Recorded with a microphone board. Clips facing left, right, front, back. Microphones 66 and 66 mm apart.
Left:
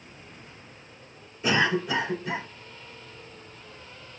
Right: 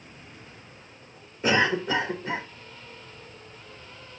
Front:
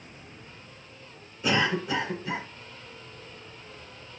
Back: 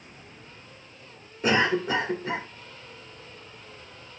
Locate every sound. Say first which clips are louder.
1.4 s a cough: right 1 dB, back 3 dB; 140° right, 2 m